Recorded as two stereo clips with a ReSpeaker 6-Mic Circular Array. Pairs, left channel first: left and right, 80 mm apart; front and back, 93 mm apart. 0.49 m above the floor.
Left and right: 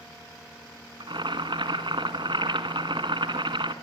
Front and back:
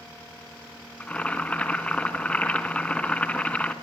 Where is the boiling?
80° right, 1.6 m.